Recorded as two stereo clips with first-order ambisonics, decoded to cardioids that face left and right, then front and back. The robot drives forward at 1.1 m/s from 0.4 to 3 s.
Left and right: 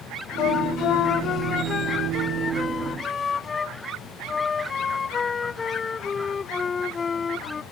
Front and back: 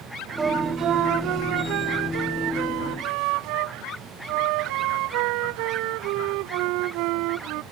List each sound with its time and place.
0.4 s a flute: 115° left; by 7.6 s 160° left